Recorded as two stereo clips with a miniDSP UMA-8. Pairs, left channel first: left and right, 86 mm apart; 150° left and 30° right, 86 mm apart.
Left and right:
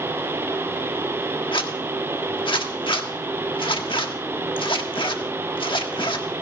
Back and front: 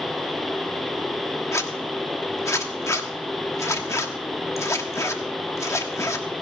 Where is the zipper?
95° left, 1.4 m.